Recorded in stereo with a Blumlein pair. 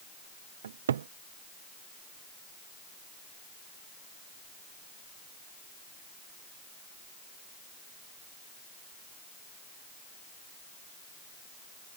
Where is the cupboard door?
65° right.